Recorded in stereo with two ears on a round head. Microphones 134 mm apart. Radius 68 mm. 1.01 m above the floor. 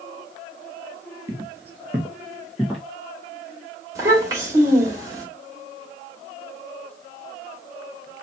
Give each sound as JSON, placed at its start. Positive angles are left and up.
{"t": 1.3, "sound": "footsteps", "side_deg": -20, "distance_m": 1.0}
{"t": 4.0, "sound": "a child speaking", "side_deg": -20, "distance_m": 2.5}